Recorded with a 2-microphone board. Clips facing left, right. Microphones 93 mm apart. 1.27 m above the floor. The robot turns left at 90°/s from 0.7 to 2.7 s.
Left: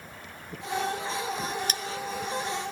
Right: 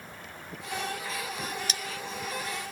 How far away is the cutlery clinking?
About 0.5 m.